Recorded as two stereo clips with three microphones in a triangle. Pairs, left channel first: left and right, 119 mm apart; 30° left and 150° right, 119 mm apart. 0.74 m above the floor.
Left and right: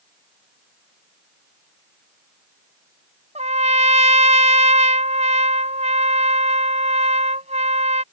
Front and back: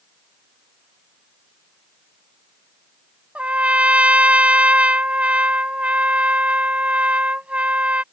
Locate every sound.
3.4 s a trumpet: 70° right